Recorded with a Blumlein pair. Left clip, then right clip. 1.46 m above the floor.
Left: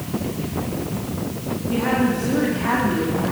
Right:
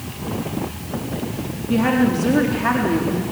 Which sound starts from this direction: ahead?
A woman speaking, at 1.7 s.